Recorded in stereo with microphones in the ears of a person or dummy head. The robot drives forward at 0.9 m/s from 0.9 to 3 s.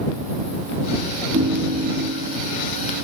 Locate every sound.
1.3 s a ringtone: 45° right (ahead or behind); by 2.4 s 50° right (ahead or behind)